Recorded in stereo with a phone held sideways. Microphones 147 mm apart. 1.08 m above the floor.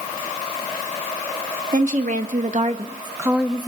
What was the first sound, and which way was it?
A woman speaking, 65° right (ahead or behind).